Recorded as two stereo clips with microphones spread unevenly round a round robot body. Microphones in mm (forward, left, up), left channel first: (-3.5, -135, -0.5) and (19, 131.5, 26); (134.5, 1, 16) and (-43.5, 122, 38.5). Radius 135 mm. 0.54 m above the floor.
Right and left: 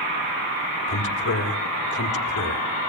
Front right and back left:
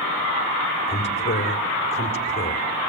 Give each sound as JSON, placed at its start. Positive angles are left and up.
{"t": 0.9, "sound": "a man speaking", "azimuth_deg": -90, "distance_m": 1.9}